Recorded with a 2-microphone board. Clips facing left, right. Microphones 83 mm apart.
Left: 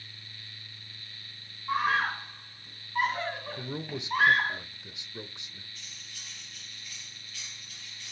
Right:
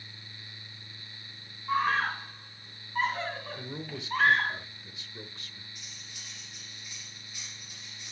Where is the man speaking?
20° left (ahead or behind), 0.9 m.